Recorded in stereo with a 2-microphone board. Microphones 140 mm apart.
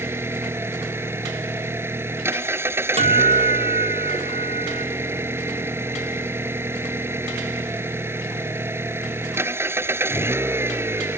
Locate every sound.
0.0 s an engine running: 15° right (ahead or behind)
3.0 s a guitar: 45° right (ahead or behind)